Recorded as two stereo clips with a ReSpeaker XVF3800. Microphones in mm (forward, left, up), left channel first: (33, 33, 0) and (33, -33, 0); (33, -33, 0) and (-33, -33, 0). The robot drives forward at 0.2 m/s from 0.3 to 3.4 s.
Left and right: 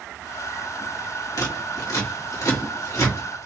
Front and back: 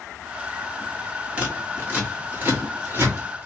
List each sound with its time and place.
1.4 s scissors: 115° left, 1.7 m; by 3.5 s 125° left, 1.9 m